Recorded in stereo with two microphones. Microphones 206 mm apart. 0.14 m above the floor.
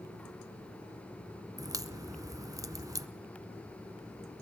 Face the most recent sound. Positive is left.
turn(degrees=-15)  # may be behind; listen again after turning